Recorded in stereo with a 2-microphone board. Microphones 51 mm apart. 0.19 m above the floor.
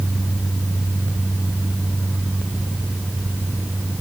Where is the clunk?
I don't hear a clunk.